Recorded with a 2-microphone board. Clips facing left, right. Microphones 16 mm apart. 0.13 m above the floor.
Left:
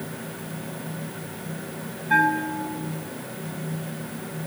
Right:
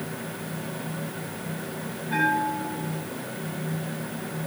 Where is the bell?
70° left (ahead or behind), 6 m.